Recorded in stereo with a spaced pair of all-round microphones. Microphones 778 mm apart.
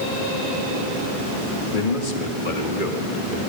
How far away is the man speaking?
About 2 m.